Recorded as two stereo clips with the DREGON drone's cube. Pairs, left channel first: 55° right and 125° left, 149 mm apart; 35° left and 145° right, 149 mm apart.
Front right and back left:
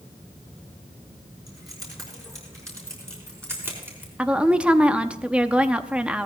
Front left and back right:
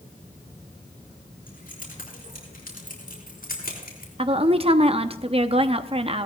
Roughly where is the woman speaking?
Behind right.